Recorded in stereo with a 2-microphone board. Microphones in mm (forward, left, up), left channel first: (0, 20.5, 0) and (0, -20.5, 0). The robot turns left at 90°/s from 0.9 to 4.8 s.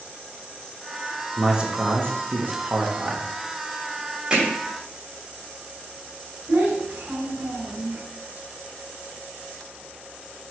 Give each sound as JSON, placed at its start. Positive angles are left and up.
{"t": 1.4, "sound": "a man speaking", "azimuth_deg": 0, "distance_m": 1.2}
{"t": 4.3, "sound": "hammering", "side_deg": -20, "distance_m": 2.5}
{"t": 6.5, "sound": "a child speaking", "side_deg": -65, "distance_m": 2.5}